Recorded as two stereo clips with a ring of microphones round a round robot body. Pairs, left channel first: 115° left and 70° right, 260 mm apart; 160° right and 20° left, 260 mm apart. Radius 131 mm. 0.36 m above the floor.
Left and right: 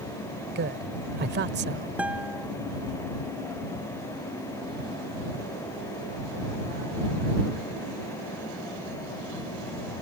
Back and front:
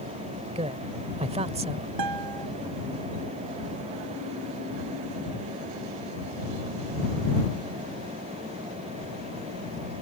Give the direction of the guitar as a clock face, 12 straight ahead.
11 o'clock.